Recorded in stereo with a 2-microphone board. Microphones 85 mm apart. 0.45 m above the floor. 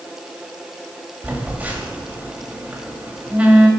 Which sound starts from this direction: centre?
A phone buzzing, at 1.2 s.